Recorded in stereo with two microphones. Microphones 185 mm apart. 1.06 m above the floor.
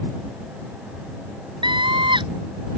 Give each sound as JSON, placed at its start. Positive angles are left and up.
{"t": 1.6, "sound": "a scream", "side_deg": -25}